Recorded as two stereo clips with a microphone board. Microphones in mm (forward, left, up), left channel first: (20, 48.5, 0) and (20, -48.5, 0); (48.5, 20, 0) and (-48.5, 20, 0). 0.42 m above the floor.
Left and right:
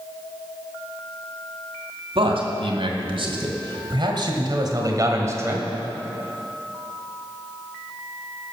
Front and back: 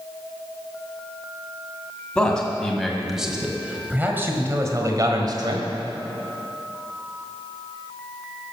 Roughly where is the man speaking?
Right.